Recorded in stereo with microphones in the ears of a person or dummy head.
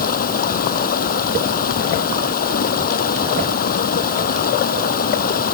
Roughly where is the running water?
Left.